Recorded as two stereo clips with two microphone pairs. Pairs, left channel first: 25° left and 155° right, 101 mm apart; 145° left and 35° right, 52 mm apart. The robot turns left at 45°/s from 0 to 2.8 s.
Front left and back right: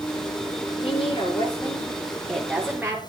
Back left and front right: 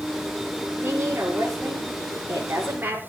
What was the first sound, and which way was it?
A woman speaking, 15° left.